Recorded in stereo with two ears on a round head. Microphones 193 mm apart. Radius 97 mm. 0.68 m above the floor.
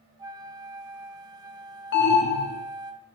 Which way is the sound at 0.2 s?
20° right (ahead or behind).